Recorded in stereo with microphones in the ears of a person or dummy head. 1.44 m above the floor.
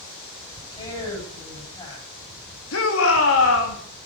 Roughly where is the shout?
Left.